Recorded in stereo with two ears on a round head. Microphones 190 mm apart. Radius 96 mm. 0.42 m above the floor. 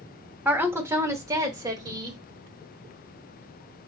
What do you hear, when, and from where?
0.5 s a woman speaking: 10° right (ahead or behind), 1.0 m; by 2.2 s 20° right (ahead or behind), 1.7 m